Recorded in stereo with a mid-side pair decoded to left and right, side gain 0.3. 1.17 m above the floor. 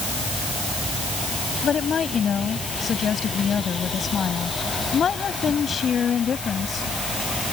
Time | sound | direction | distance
1.6 | a woman speaking | 65° left | ?